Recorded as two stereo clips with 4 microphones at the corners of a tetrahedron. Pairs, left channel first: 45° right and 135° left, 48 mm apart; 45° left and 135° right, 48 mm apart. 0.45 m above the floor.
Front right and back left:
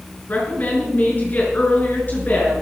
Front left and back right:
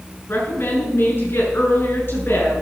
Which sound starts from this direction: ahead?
A woman speaking, at 0.3 s.